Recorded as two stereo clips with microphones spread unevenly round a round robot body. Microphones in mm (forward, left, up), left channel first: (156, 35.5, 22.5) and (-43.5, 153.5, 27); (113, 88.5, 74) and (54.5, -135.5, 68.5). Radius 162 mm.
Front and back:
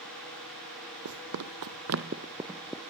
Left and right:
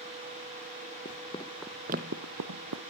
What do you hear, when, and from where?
1.1 s running footsteps: 140° left, 1.3 m; by 2.8 s 115° right, 1.3 m